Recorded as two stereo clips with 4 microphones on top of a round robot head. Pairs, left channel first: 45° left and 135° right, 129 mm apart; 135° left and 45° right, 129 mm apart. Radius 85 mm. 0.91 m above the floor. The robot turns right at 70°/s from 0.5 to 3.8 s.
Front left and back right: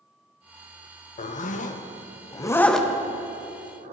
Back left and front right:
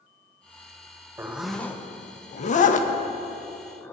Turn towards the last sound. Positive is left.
turn(degrees=-155)